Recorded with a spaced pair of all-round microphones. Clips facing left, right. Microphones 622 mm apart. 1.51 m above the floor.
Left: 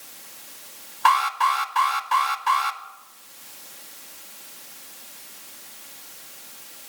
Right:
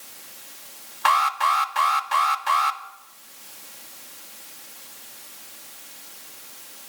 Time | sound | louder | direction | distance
1.1 | an alarm | left 1 dB | 5° right (ahead or behind) | 0.8 m